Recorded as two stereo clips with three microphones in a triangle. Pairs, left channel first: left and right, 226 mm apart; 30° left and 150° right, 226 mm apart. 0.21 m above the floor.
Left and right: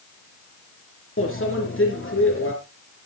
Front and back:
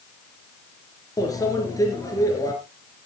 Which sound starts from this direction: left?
A microwave, at 1.2 s.